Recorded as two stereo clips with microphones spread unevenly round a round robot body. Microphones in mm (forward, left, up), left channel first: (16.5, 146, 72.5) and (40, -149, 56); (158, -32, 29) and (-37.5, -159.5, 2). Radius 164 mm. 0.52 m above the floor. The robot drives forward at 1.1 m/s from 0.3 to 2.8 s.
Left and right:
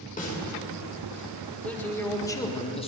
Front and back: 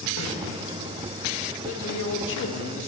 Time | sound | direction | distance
0.2 | a snare drum | 30° left | 2.5 m
1.6 | a man speaking | 10° left | 1.6 m